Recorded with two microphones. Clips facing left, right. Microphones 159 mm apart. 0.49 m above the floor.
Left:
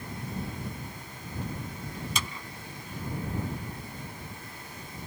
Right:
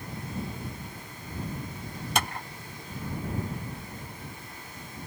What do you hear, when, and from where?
2.1 s a clap: 65° right (ahead or behind)